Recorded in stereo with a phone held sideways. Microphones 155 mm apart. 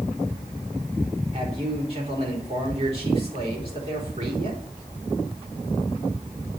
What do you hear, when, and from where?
1.3 s a man speaking: 40° right (ahead or behind), 4.5 m